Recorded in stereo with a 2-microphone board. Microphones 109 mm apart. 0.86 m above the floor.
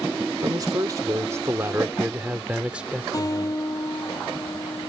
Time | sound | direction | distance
0.4 | a man speaking | 40° right (ahead or behind) | ?
3.1 | a guitar | 35° left (ahead or behind) | ?